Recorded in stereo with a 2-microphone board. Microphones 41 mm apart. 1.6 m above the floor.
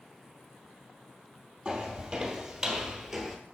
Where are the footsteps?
20° right (ahead or behind), 2.0 m; by 3.4 s 5° right (ahead or behind), 1.5 m.